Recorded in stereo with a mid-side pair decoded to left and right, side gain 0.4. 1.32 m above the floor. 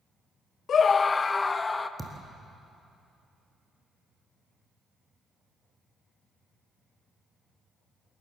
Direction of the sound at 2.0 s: 15° right.